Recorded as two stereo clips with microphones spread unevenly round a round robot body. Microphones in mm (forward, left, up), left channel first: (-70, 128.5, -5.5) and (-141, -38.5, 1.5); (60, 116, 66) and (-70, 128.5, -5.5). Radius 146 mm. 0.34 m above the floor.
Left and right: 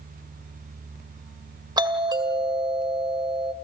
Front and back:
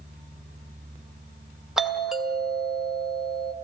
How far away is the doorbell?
About 2.0 m.